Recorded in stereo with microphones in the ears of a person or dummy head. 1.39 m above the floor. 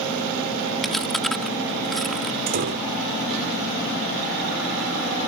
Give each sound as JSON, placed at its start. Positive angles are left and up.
{"t": 0.8, "sound": "chewing", "side_deg": 5}
{"t": 2.5, "sound": "a door slam", "side_deg": -55}